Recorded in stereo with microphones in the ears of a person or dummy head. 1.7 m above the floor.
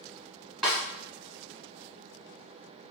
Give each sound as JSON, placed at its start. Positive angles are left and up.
{"t": 0.6, "sound": "a snare drum", "side_deg": -5, "distance_m": 1.1}